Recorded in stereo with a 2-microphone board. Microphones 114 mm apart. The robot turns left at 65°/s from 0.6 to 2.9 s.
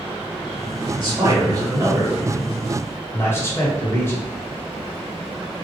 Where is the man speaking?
90° right, 1.1 m; by 4.3 s 140° left, 1.1 m.